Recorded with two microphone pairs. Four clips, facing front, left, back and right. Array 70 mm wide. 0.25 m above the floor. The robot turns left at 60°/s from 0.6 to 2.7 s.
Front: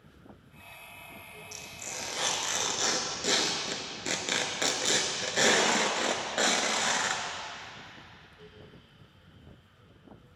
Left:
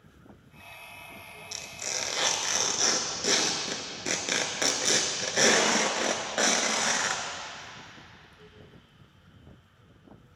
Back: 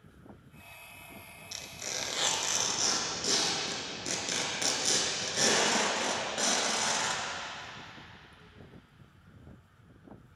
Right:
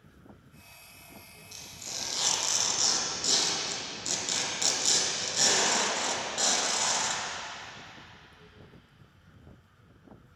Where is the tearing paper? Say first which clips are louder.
Left 7 dB, back 2 dB; 130° left, 0.5 m; by 7.2 s 60° left, 0.5 m.